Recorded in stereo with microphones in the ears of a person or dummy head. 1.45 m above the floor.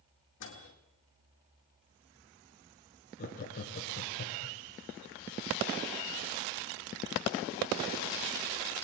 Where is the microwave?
65° left (ahead or behind), 2 m.